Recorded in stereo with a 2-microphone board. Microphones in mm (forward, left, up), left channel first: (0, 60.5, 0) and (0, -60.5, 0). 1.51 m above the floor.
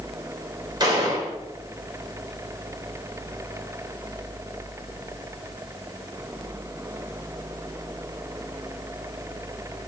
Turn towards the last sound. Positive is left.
turn(degrees=-35)  # may be behind; listen again after turning